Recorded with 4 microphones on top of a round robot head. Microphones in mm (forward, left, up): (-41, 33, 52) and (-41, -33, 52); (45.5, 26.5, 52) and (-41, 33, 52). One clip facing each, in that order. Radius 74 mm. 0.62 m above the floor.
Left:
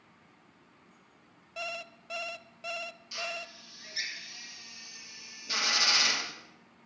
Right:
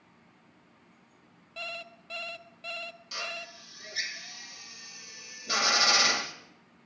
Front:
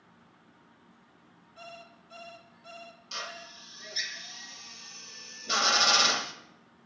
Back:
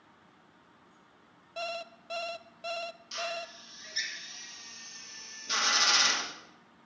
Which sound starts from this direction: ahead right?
A drill, at 3.1 s.